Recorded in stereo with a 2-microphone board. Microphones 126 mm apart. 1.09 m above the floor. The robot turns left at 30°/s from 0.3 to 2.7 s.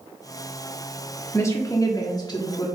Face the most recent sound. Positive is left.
turn(degrees=100)